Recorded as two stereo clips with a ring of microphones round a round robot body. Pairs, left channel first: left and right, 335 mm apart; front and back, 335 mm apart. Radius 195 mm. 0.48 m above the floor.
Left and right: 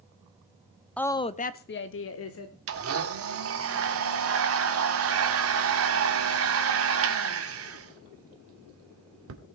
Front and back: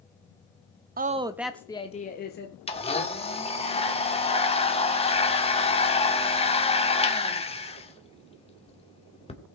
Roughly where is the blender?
Ahead right.